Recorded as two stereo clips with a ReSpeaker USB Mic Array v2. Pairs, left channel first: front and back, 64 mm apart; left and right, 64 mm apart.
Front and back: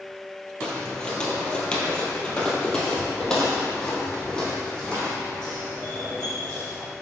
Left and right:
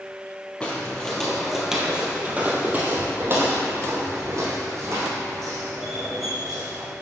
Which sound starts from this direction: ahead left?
Footsteps, at 0.6 s.